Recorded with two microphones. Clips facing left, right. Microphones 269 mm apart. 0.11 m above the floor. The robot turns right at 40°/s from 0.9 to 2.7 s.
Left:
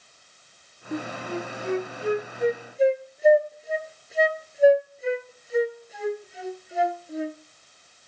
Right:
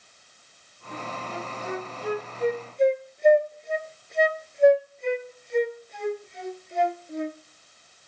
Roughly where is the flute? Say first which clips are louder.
Left 6 dB; left.